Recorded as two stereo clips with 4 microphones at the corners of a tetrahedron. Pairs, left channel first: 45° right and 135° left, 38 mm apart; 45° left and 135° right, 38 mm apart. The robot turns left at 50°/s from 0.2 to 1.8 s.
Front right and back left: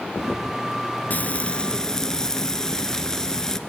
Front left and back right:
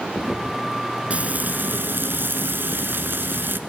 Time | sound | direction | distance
1.1 | frying | 80° right | 1.2 m